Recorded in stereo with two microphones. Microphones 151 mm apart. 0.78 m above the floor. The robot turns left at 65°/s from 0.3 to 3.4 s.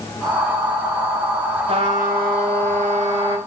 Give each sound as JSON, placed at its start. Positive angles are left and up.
{"t": 1.7, "sound": "a trumpet", "azimuth_deg": -40, "distance_m": 6.0}